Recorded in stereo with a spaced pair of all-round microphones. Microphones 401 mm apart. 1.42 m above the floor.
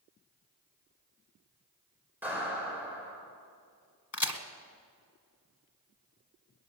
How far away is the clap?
About 6.5 m.